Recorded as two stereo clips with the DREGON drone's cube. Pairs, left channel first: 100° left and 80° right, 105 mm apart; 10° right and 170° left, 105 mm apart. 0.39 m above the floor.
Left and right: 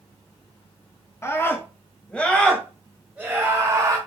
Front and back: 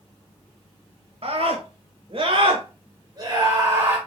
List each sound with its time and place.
1.2 s a scream: 160° left, 2.5 m; by 4.0 s 125° right, 1.9 m